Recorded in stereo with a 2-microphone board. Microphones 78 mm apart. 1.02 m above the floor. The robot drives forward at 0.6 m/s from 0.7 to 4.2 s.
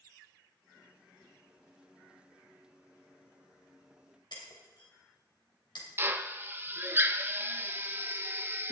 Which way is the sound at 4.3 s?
75° left (ahead or behind).